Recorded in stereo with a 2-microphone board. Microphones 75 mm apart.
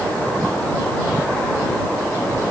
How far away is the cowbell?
I don't hear a cowbell.